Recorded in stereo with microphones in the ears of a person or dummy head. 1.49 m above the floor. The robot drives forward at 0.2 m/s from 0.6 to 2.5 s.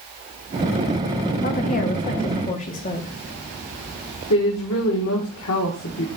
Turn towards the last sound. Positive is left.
turn(degrees=70)  # may be behind; listen again after turning